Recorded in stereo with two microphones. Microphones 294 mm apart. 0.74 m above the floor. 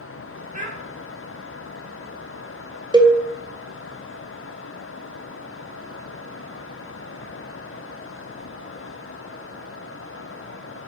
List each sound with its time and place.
0.5 s a child speaking: 25° right (ahead or behind), 0.5 m
2.9 s a cowbell: 15° right (ahead or behind), 0.6 m